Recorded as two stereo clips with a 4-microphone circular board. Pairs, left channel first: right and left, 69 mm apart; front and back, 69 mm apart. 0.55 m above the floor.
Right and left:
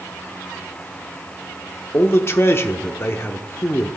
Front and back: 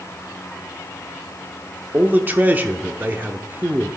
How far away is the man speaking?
About 0.9 m.